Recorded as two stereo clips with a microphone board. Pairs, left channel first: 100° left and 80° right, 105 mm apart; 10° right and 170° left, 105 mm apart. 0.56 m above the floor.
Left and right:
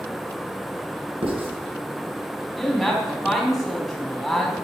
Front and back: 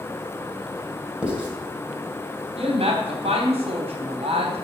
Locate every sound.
1.2 s writing: 110° right, 3 m
2.6 s a woman speaking: 170° right, 4 m